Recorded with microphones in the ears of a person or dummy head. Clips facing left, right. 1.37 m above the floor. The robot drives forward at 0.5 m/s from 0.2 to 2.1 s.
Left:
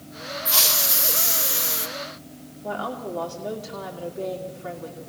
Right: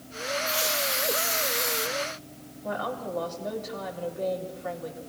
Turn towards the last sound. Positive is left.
turn(degrees=40)  # may be behind; listen again after turning